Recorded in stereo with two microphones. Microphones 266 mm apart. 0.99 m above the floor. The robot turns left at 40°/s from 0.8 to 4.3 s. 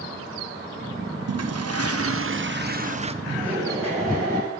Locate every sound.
1.3 s a toilet flushing: 80° right, 0.6 m; by 3.1 s 155° right, 0.6 m
3.2 s laughter: 25° right, 8 m; by 4.5 s 65° right, 8 m